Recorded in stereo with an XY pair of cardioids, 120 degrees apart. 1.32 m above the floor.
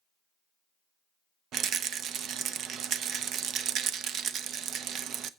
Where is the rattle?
65° right, 0.8 m.